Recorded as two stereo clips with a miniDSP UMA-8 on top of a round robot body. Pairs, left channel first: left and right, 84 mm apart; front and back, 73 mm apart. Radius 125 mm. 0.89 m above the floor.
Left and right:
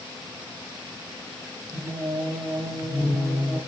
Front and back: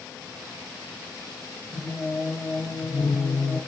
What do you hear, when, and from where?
1.7 s singing: 35° right, 5.5 m